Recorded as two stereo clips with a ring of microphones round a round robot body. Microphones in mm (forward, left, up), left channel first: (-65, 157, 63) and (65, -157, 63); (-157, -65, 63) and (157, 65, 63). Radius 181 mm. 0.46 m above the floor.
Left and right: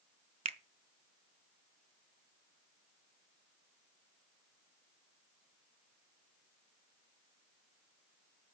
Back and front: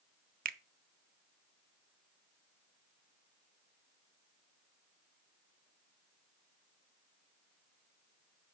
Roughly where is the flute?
No flute in this recording.